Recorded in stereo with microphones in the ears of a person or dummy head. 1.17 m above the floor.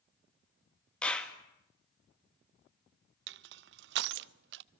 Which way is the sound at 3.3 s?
70° right (ahead or behind).